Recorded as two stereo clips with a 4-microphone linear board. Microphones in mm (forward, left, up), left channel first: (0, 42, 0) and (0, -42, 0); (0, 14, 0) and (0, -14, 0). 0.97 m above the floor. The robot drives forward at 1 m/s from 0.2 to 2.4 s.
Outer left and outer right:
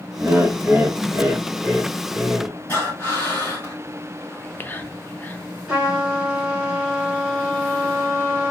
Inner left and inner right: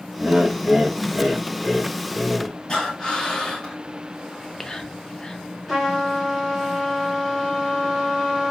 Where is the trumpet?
10° right (ahead or behind), 3.5 m.